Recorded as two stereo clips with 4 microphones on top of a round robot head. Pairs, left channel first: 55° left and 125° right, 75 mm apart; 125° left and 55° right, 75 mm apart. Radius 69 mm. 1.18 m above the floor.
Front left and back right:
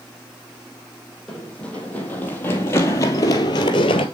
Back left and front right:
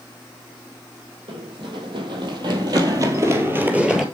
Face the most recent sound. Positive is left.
turn(degrees=30)